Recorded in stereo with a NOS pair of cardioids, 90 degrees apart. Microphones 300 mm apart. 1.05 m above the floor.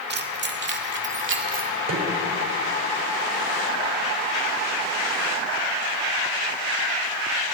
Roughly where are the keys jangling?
Ahead right.